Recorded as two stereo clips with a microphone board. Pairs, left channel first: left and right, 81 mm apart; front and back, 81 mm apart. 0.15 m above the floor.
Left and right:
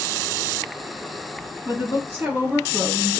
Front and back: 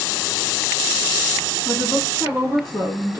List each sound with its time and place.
1.6 s a woman speaking: 155° right, 1.9 m; by 3.2 s straight behind, 1.2 m